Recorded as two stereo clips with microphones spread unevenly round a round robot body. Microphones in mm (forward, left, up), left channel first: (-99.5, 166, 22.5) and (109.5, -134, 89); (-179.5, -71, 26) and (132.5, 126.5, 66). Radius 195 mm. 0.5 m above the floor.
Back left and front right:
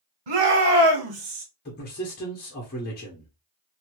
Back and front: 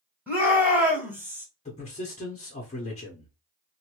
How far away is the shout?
About 2.0 m.